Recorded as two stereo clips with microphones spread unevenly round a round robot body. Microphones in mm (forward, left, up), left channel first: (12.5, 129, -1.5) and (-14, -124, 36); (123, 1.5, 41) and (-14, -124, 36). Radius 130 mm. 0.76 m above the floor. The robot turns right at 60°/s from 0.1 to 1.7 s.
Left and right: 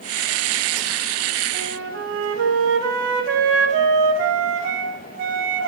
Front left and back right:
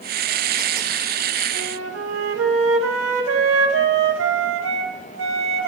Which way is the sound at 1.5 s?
150° right.